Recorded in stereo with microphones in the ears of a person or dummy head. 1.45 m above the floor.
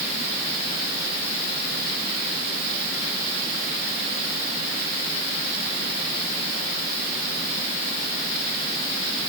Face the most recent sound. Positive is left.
No sound to turn to.